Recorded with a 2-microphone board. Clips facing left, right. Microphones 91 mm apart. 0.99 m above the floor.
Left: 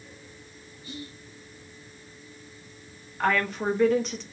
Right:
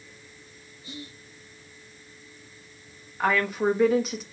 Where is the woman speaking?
5° right (ahead or behind), 1.2 m.